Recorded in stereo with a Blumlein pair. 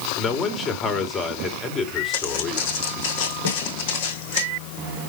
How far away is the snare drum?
About 2 m.